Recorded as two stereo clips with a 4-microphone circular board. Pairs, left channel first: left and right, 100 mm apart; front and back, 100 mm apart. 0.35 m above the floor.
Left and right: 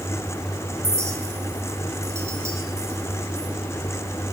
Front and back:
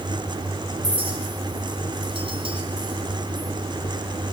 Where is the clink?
155° right, 2.5 m.